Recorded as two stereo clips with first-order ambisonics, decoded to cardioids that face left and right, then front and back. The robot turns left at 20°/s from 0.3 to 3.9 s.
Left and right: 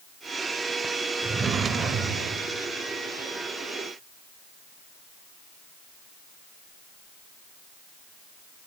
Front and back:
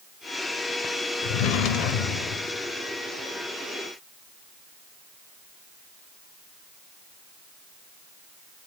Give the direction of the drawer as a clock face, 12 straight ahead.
1 o'clock.